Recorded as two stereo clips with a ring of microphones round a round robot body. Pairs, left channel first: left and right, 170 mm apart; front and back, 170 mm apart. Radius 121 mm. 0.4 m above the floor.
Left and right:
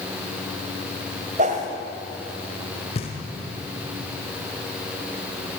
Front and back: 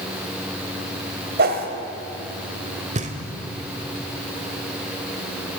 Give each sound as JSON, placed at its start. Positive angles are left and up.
{"t": 1.4, "sound": "a whoosh", "azimuth_deg": -145, "distance_m": 1.2}
{"t": 3.0, "sound": "knocking", "azimuth_deg": 145, "distance_m": 1.7}